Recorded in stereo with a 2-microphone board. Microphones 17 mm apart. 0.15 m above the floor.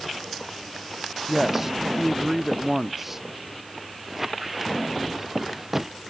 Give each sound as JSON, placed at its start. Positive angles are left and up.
{"t": 1.3, "sound": "a man speaking", "side_deg": -20}
{"t": 4.1, "sound": "a squeak", "side_deg": -15}